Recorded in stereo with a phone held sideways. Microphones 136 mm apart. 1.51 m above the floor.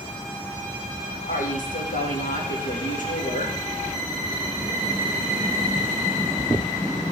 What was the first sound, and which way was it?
A woman speaking, 75° left (ahead or behind).